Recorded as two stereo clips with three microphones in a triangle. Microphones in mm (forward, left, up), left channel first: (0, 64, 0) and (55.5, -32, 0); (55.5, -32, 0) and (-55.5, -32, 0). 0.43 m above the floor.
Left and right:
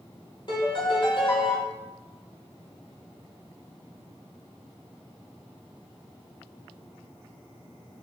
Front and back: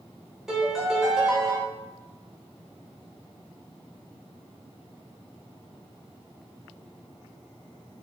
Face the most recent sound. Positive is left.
turn(degrees=95)